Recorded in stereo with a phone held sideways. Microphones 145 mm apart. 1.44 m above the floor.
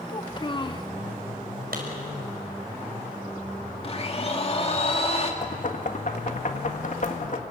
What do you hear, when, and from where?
0.1 s a child speaking: 30° left (ahead or behind), 1.1 m
1.7 s a clap: 85° right, 5.5 m
3.8 s a blender: 40° left (ahead or behind), 2.5 m
5.4 s knocking: 55° left (ahead or behind), 1.7 m